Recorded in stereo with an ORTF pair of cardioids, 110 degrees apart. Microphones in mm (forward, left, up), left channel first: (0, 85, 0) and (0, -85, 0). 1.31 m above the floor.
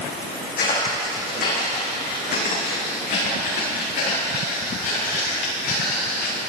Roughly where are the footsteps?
Ahead left.